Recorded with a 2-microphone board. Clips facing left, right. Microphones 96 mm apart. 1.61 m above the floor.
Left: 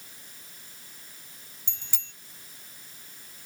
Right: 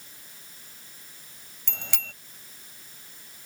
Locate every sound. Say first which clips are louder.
1.7 s a bicycle bell: right 16 dB; 75° right (ahead or behind)